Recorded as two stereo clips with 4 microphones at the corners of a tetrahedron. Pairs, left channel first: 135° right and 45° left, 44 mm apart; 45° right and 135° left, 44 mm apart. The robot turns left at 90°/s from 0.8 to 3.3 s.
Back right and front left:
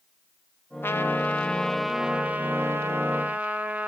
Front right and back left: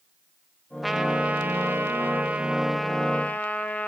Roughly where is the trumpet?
Behind right.